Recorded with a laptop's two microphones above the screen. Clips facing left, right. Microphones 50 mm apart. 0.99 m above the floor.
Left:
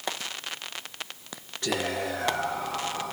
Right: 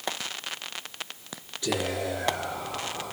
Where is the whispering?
60° left (ahead or behind), 1.5 m.